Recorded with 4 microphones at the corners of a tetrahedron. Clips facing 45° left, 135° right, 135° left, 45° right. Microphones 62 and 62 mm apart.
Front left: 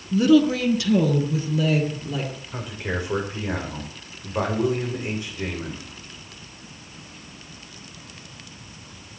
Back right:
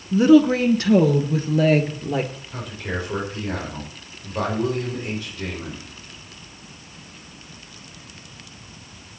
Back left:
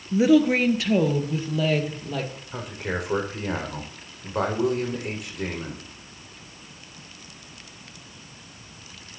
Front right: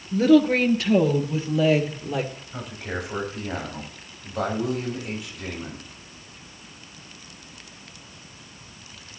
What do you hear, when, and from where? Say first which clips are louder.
0.1 s a woman speaking: back right 3 dB, front right 1 dB; 165° right, 1.3 m; by 2.3 s 120° right, 3 m
2.5 s a man speaking: even, back left 3 dB; 115° left, 6 m